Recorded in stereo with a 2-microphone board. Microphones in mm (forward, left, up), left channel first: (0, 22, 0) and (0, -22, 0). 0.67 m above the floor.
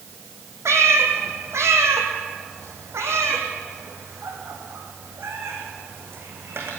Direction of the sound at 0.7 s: 80° right.